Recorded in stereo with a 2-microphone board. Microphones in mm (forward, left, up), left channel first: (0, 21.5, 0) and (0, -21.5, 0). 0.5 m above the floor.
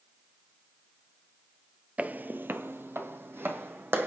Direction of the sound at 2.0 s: 35° right (ahead or behind).